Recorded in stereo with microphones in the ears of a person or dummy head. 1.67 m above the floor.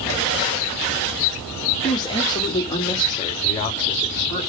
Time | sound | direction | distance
1.8 | a man speaking | 20° left (ahead or behind) | 1.8 m